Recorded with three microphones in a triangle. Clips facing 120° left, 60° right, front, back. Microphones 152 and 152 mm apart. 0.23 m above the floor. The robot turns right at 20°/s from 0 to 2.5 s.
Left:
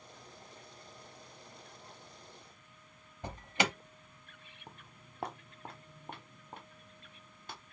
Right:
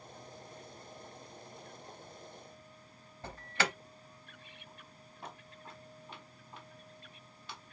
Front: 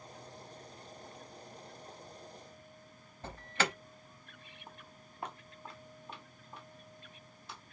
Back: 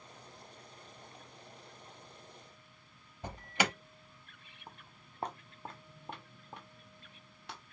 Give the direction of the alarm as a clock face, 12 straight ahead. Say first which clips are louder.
Left 2 dB, back 1 dB; 7 o'clock.